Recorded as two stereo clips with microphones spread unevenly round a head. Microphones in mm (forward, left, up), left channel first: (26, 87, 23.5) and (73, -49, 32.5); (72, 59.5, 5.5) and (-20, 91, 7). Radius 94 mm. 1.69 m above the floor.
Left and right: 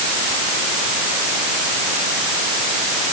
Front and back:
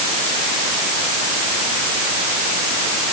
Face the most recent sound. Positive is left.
No sound to turn to.